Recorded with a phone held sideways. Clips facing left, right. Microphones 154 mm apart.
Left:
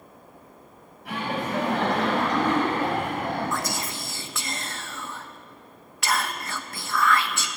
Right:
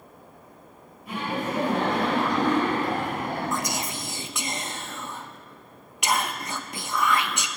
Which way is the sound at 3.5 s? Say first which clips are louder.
Right 1 dB; 20° right (ahead or behind).